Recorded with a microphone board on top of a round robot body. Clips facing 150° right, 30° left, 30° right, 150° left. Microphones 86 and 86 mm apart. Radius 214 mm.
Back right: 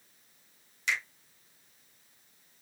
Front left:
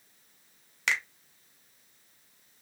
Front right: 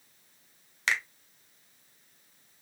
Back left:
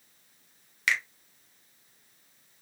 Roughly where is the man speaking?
I don't hear a man speaking.